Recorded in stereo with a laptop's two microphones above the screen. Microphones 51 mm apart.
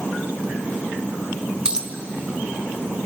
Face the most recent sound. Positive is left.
turn(degrees=-20)  # may be behind; listen again after turning